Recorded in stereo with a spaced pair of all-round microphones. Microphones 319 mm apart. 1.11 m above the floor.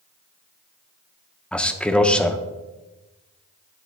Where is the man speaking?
5° left (ahead or behind), 0.5 m.